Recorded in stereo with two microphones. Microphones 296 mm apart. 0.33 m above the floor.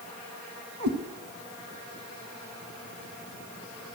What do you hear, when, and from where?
0.8 s a cat meowing: 70° right (ahead or behind), 0.9 m